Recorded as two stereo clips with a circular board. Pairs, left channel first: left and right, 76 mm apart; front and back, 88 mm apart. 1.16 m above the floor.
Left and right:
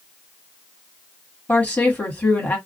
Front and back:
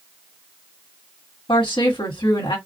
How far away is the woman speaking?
About 1.5 m.